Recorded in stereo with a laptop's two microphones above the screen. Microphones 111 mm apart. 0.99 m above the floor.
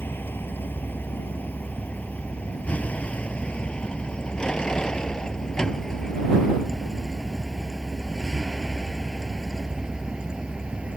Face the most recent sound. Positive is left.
turn(degrees=-10)  # may be behind; listen again after turning